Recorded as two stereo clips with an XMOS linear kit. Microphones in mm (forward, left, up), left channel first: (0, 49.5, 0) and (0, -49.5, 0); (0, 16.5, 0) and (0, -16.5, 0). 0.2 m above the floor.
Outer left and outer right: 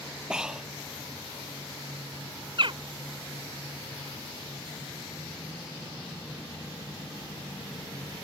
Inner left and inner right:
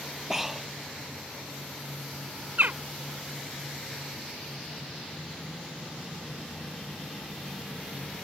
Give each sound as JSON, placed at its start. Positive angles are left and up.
{"t": 0.3, "sound": "breathing", "side_deg": -10}
{"t": 2.6, "sound": "a bird", "side_deg": -55}